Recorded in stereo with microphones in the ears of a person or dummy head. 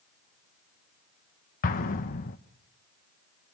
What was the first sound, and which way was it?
An explosion, 40° left (ahead or behind).